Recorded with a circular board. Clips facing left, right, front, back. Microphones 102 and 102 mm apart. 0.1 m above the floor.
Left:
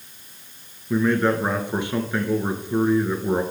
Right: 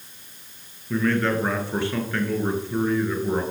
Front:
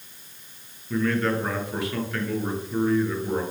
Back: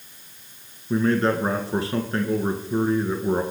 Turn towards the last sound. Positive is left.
turn(degrees=150)